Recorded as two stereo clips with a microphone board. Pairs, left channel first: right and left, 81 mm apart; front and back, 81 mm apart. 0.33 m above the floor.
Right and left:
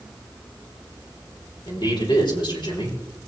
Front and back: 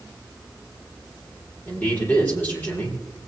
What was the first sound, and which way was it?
A man speaking, 65° right.